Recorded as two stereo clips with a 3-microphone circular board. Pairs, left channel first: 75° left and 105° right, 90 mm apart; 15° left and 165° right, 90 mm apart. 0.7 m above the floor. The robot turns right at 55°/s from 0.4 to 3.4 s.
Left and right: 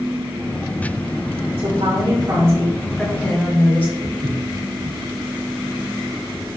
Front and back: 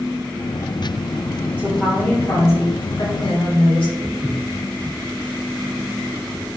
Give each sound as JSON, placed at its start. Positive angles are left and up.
{"t": 1.6, "sound": "a woman speaking", "azimuth_deg": -90, "distance_m": 4.5}
{"t": 4.0, "sound": "footsteps", "azimuth_deg": -90, "distance_m": 3.0}